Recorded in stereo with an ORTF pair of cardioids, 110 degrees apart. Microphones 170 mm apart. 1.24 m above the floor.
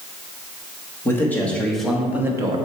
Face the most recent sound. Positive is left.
turn(degrees=-30)